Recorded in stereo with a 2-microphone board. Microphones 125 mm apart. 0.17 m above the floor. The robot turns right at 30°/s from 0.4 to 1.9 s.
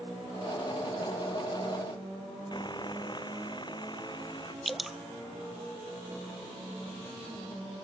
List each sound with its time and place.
2.5 s sawing: 40° left (ahead or behind)
4.7 s dripping: centre (ahead or behind)